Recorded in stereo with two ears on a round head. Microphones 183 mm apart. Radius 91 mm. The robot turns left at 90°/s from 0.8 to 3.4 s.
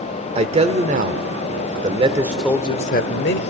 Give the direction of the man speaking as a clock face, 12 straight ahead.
1 o'clock.